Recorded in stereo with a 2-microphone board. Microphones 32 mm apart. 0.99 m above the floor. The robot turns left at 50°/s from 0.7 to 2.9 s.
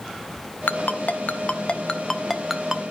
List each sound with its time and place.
0.7 s a ringtone: 75° left (ahead or behind), 0.9 m; by 2.9 s 25° right (ahead or behind), 0.9 m